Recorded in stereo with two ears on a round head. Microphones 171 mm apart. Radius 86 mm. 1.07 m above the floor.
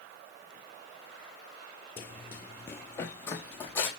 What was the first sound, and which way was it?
Running footsteps, 10° left (ahead or behind).